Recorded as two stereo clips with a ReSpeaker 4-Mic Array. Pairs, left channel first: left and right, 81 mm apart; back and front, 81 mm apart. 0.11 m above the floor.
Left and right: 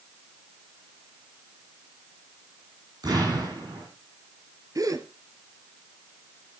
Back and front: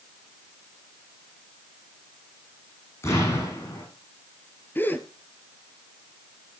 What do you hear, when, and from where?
3.0 s an explosion: 125° right, 8 m
4.8 s a gasp: 120° right, 1.8 m